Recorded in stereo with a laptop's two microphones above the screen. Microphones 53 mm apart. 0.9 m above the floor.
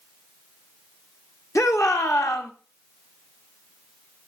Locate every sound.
1.6 s a shout: 65° left (ahead or behind), 1.3 m